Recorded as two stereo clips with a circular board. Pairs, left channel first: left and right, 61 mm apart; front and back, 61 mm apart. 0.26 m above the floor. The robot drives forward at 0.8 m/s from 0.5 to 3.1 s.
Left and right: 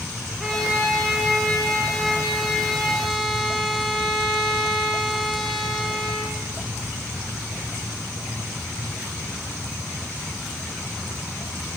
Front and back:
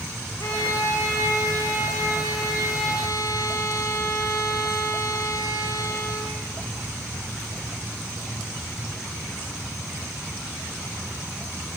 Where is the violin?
Straight ahead, 6 m.